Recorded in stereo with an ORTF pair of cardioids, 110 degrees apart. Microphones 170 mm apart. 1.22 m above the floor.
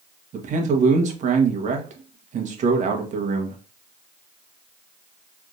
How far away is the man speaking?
About 1.4 m.